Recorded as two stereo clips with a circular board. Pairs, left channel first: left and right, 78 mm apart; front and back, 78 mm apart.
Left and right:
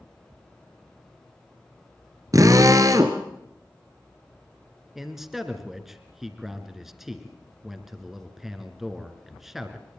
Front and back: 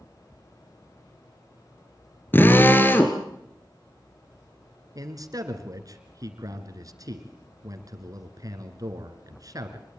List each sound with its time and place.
2.3 s a drill: 60° right, 1.8 m
5.0 s a man speaking: 175° right, 2.5 m